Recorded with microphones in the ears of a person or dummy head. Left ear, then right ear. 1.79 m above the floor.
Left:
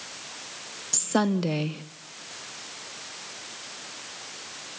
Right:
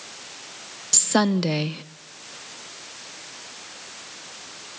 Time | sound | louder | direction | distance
0.9 | a woman speaking | right 4 dB | 25° right (ahead or behind) | 0.6 m